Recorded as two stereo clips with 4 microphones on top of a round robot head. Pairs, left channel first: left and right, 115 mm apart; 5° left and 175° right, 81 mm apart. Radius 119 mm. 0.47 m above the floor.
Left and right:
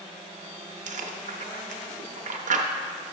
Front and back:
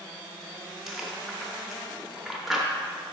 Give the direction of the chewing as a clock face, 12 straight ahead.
3 o'clock.